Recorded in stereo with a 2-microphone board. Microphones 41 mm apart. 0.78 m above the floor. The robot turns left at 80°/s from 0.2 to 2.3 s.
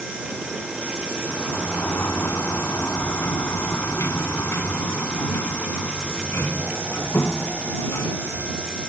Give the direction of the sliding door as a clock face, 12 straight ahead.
7 o'clock.